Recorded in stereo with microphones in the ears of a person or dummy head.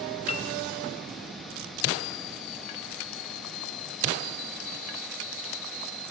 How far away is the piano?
About 1.0 m.